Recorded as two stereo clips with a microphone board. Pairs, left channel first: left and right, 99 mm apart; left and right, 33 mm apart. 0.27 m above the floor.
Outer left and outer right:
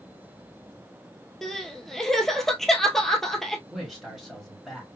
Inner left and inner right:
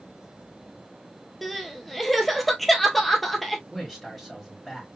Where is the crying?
5° left (ahead or behind), 1.0 m.